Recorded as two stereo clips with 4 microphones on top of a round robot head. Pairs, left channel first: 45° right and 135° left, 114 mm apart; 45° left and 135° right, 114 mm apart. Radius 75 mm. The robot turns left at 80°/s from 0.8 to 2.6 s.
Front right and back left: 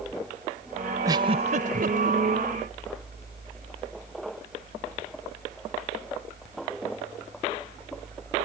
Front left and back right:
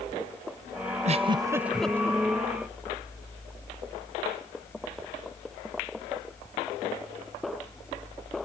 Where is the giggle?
160° right; by 2.2 s 105° left.